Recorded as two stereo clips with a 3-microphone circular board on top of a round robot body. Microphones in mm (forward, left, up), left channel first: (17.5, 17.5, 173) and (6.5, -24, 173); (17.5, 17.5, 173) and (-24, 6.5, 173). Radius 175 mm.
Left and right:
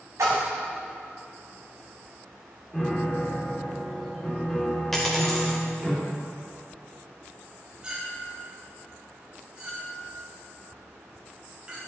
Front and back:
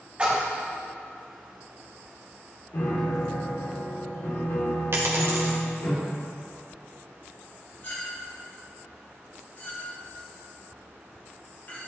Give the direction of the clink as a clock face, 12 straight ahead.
1 o'clock.